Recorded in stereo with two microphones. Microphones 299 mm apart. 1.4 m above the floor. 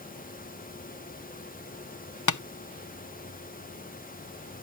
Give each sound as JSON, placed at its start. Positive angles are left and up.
{"t": 2.3, "sound": "tapping", "side_deg": 75}